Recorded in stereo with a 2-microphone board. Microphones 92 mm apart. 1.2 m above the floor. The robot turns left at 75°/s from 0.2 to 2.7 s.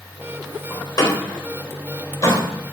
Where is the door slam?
25° left (ahead or behind), 3.5 m.